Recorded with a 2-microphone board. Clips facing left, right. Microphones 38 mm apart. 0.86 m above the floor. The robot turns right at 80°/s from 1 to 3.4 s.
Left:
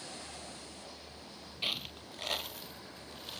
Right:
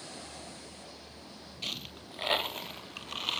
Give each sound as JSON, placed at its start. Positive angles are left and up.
{"t": 1.6, "sound": "a dropped coin", "side_deg": 25}